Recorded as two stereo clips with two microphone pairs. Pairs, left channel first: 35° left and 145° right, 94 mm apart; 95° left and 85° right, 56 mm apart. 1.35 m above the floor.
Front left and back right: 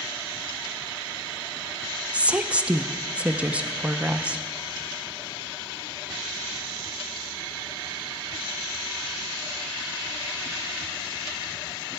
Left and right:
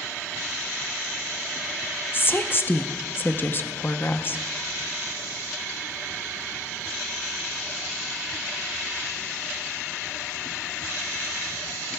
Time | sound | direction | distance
2.1 | a woman speaking | 140° left | 0.5 m